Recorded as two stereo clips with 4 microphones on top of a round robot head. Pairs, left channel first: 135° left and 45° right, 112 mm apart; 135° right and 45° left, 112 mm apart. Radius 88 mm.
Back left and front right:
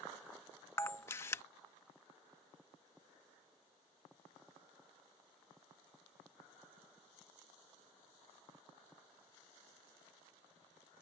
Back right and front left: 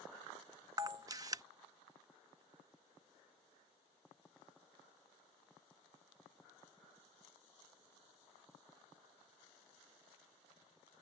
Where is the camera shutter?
80° left.